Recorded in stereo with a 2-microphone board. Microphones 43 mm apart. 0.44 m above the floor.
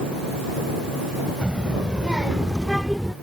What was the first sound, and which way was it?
A child speaking, 25° right (ahead or behind).